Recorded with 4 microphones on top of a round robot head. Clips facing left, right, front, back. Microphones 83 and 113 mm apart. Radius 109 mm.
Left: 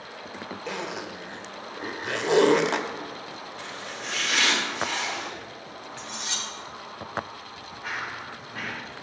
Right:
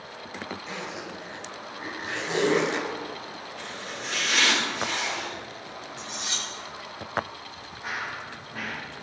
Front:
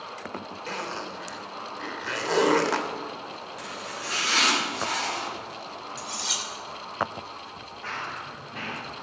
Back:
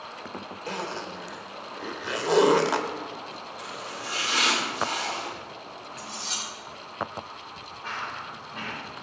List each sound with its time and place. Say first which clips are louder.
0.7 s a zipper: left 3 dB, back 1 dB; 105° left, 1.5 m
3.6 s chopping: right 1 dB, even; straight ahead, 7 m
6.0 s cutlery clinking: left 1 dB, front 1 dB; 10° right, 2 m
7.8 s running footsteps: even, even; 5° right, 5.5 m